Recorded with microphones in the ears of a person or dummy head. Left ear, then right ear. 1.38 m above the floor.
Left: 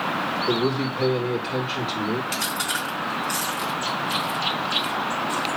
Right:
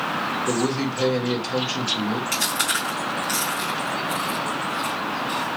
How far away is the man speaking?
About 1.8 m.